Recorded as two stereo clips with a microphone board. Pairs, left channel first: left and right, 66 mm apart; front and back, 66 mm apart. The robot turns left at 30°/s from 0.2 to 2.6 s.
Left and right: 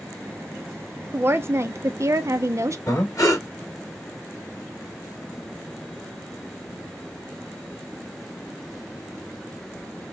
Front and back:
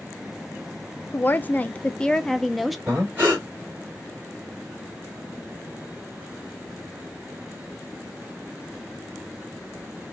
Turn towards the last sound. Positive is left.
turn(degrees=120)